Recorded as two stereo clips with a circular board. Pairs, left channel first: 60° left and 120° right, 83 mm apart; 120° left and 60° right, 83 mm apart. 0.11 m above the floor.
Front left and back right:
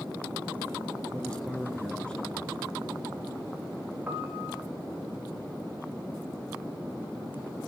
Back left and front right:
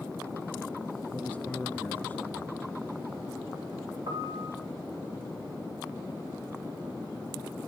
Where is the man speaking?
110° left, 1.5 m.